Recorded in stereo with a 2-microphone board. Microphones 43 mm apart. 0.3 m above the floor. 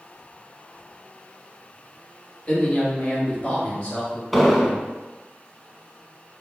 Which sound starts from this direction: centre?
An explosion, at 4.3 s.